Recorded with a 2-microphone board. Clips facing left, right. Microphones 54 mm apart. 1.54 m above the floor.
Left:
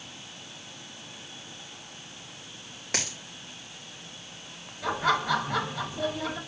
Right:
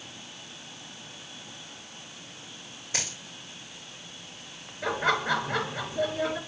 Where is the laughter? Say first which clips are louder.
Even; 30° right (ahead or behind), 4 m.